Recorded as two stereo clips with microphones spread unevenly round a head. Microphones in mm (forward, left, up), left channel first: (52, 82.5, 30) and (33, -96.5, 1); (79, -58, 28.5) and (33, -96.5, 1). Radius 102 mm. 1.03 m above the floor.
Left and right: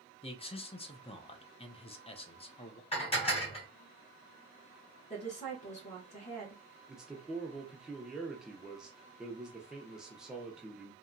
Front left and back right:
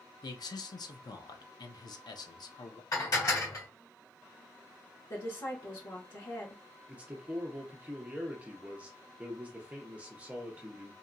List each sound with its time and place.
0.2 s a man speaking: 25° left, 0.6 m
2.9 s dishes clattering: 25° left, 1.4 m
5.1 s a woman speaking: 30° left, 1.2 m
6.9 s a man speaking: 175° right, 0.5 m